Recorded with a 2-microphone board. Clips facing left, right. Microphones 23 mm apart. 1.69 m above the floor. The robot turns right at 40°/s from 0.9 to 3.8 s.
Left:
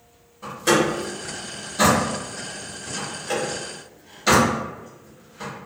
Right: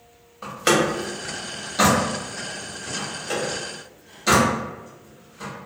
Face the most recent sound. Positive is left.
turn(degrees=10)  # may be behind; listen again after turning